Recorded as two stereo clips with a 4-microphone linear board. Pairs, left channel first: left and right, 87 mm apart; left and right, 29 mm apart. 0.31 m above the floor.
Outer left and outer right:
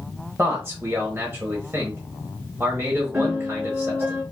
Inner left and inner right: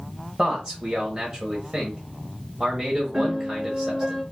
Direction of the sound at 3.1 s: 25° right (ahead or behind).